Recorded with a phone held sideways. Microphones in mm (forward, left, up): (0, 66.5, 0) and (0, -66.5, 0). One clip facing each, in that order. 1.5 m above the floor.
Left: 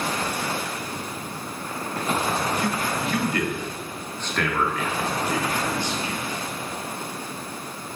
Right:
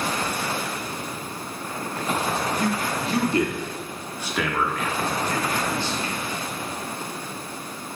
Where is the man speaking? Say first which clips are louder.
Right 1 dB; 45° right (ahead or behind), 2.5 m; by 6.2 s 20° left (ahead or behind), 4 m.